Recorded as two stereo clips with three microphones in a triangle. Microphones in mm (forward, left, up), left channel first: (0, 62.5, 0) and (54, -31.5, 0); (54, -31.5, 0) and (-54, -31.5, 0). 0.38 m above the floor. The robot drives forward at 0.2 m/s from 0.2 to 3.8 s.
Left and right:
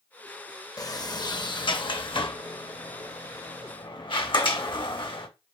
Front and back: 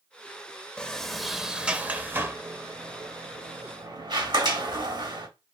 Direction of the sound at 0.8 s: 75° left.